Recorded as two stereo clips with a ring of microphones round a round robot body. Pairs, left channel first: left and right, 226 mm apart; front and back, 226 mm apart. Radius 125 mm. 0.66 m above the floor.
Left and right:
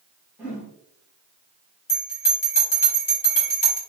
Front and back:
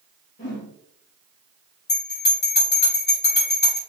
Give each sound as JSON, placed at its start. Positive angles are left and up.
{"t": 0.4, "sound": "a whoosh", "azimuth_deg": -5, "distance_m": 1.5}
{"t": 1.9, "sound": "a bell", "azimuth_deg": 35, "distance_m": 2.0}